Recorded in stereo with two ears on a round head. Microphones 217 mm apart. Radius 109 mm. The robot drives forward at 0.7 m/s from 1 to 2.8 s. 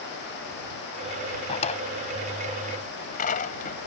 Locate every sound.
1.5 s a drawer: 25° left (ahead or behind); by 3.8 s 35° left (ahead or behind)